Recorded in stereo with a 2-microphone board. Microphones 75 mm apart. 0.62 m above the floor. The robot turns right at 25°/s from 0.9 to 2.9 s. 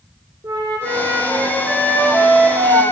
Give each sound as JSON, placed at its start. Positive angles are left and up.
{"t": 0.4, "sound": "a flute", "azimuth_deg": -90, "distance_m": 1.7}